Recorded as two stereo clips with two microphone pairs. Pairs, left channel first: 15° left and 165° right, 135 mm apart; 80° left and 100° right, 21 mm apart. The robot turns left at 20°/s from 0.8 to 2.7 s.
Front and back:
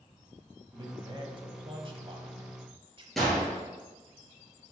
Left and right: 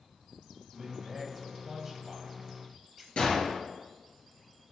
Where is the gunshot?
105° left, 2.5 m.